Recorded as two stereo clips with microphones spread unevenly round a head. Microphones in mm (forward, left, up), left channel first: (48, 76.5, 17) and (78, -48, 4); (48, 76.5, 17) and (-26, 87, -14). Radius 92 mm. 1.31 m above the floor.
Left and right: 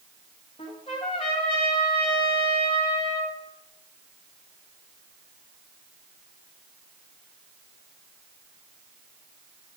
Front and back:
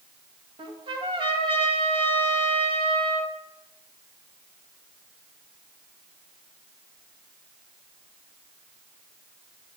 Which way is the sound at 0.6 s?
160° left.